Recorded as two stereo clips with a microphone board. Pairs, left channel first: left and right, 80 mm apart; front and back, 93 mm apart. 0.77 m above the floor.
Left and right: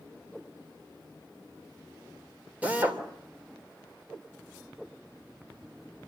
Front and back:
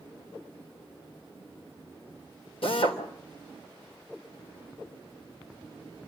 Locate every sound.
2.6 s a drill: 20° right, 3 m